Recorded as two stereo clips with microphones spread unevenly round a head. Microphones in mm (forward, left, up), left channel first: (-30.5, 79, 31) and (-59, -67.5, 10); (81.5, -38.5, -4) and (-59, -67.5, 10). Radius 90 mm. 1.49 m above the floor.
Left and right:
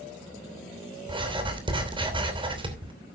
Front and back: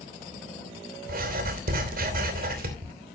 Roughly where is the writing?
Behind.